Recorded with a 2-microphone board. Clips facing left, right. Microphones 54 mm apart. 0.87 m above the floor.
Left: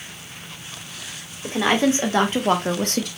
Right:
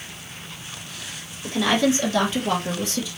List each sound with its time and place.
1.4 s a woman speaking: 30° left (ahead or behind), 1.3 m; by 3.1 s 60° left (ahead or behind), 0.7 m